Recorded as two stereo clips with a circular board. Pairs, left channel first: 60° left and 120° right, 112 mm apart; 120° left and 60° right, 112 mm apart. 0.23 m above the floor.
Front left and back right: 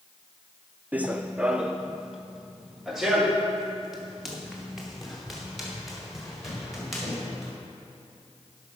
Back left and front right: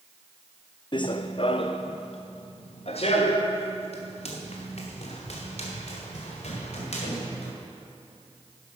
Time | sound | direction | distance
0.9 | running footsteps | 165° left | 0.5 m